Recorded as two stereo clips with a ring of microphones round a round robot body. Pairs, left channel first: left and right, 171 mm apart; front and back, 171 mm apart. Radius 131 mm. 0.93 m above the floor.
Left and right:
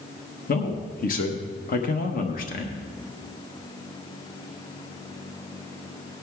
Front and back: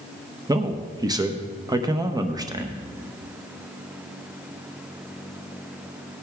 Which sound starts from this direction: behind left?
A man speaking, at 0.5 s.